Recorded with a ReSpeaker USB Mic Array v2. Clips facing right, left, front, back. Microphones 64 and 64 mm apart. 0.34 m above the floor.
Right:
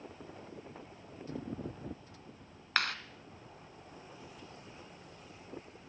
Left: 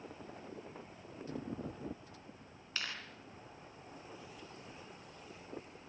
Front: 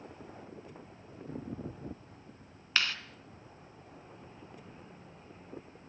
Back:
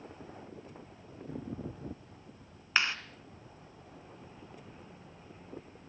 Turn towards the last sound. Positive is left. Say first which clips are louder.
# right 10 dB, back 2 dB
turn(degrees=-115)